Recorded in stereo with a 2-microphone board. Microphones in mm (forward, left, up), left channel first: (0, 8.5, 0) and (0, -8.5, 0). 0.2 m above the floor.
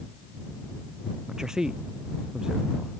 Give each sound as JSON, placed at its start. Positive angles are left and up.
{"t": 1.3, "sound": "a man speaking", "side_deg": -40}